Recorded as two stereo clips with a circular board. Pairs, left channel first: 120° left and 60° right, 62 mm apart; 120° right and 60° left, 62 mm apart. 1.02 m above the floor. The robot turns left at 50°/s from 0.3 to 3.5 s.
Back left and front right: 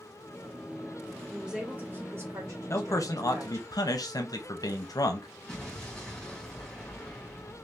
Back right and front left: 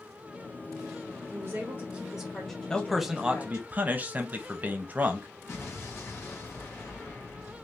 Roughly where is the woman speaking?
Ahead left.